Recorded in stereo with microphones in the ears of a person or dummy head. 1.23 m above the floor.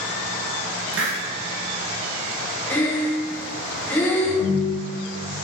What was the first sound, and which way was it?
A hiss, 80° right.